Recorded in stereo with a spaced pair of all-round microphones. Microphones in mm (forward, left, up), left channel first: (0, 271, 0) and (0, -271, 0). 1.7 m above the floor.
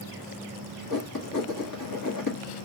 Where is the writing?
40° left (ahead or behind), 2.0 m.